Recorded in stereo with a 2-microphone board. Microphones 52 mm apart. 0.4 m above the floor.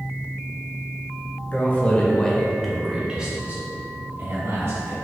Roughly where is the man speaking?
Left.